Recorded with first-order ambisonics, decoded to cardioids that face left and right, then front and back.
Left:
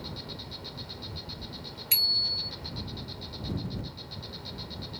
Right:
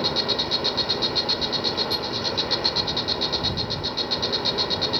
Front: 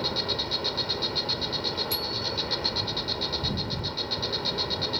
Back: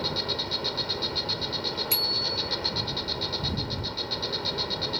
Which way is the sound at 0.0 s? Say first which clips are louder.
Right 18 dB, front 1 dB; 85° right.